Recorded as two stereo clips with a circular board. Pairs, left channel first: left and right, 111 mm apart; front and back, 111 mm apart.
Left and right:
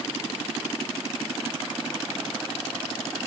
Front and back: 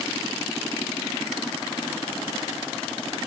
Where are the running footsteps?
No running footsteps in this recording.